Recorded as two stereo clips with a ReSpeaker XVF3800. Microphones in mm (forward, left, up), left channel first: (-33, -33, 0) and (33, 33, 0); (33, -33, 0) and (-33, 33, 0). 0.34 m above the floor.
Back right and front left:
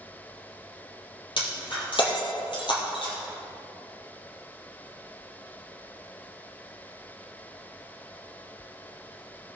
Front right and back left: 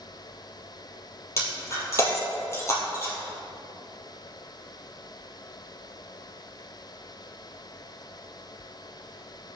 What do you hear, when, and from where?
1.4 s breaking glass: 105° right, 3.5 m